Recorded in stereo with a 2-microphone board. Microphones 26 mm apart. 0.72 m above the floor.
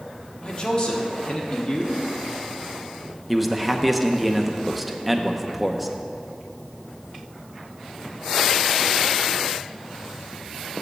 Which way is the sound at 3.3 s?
Centre (ahead or behind).